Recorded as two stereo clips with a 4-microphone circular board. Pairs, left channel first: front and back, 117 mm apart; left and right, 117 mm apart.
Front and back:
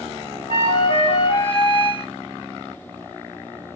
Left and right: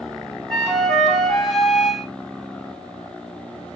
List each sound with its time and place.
0.5 s a flute: 5° left, 1.0 m